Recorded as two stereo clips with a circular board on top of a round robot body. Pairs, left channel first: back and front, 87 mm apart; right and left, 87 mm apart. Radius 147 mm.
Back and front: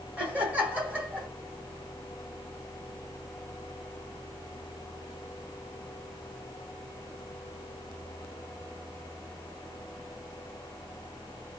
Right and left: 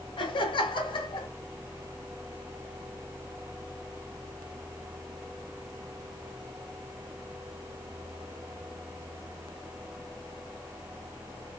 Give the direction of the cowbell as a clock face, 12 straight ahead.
I don't hear a cowbell.